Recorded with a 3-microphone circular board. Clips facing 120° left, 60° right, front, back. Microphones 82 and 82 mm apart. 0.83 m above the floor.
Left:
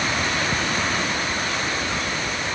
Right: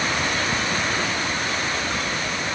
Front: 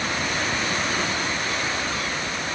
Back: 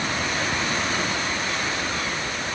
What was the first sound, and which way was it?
Only background noise.